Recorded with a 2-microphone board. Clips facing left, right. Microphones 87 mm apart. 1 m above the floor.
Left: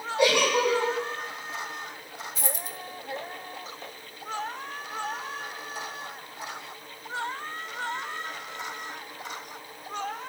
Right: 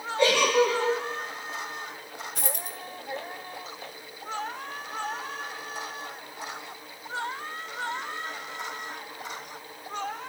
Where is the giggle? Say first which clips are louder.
Right 1 dB; 15° left (ahead or behind), 7 m.